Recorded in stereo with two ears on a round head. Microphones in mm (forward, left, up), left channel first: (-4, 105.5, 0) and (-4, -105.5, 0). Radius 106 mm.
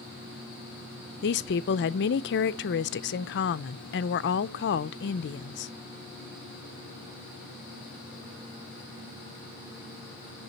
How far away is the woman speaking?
About 0.6 m.